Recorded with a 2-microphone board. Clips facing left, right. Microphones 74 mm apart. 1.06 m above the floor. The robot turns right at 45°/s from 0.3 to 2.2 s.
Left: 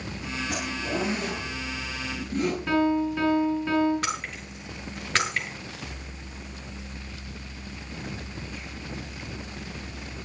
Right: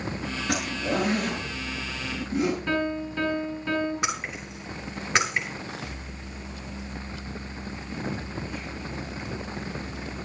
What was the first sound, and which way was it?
A zipper, 80° right.